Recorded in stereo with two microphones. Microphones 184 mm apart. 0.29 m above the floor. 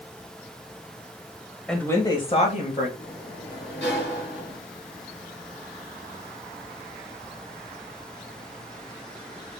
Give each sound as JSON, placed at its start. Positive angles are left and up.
{"t": 1.7, "sound": "a woman speaking", "side_deg": 5, "distance_m": 0.9}
{"t": 3.0, "sound": "a sliding door", "side_deg": 70, "distance_m": 2.5}